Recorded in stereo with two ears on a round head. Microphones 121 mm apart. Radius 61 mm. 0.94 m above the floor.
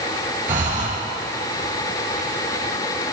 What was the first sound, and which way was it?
Breathing, 65° right (ahead or behind).